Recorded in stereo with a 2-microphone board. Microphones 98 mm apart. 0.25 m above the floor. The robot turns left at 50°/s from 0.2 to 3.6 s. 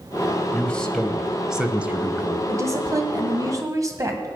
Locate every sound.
0.5 s a man speaking: 15° left (ahead or behind), 1.0 m; by 2.4 s 20° right (ahead or behind), 1.0 m
2.5 s a woman speaking: 55° right, 1.6 m; by 4.3 s 110° right, 1.6 m